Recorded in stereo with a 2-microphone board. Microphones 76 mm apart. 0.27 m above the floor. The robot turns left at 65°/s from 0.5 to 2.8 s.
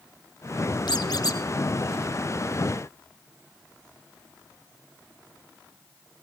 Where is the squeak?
85° left, 1.3 m; by 1.4 s 50° left, 1.3 m.